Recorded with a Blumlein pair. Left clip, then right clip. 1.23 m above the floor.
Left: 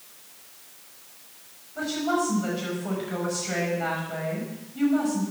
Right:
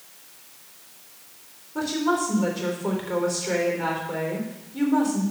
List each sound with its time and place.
1.8 s a woman speaking: 50° right, 4 m